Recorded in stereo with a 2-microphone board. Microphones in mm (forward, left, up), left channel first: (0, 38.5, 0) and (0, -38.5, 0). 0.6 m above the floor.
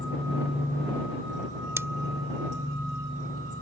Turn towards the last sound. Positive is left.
turn(degrees=-35)  # may be behind; listen again after turning